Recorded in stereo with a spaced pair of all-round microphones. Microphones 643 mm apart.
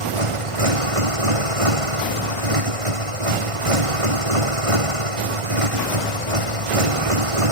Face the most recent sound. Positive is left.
turn(degrees=-55)  # may be behind; listen again after turning